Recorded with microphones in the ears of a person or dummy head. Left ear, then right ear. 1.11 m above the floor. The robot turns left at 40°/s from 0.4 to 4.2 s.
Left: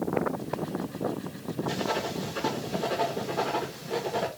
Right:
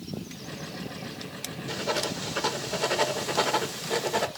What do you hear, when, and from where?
1.7 s writing: 10° right, 0.9 m; by 4.3 s 110° right, 0.9 m